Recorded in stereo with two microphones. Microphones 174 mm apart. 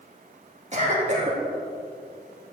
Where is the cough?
45° right (ahead or behind), 1.9 m.